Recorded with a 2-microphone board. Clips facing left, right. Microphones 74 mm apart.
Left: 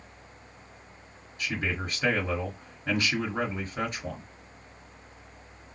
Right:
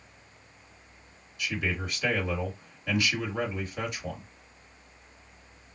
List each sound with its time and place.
1.4 s a man speaking: 45° left (ahead or behind), 2.0 m